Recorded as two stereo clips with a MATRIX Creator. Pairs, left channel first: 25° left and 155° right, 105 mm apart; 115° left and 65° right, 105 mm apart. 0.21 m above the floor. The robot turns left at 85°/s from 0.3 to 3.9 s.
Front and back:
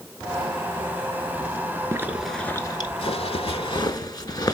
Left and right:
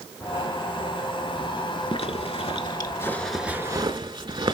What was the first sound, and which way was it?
A zipper, 145° left.